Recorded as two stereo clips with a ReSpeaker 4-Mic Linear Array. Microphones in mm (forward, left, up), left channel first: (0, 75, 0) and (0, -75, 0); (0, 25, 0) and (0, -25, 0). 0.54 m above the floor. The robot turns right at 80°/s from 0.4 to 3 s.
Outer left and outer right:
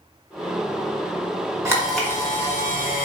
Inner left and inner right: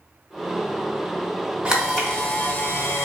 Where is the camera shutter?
20° right, 1.2 m; by 3.1 s 85° left, 1.2 m.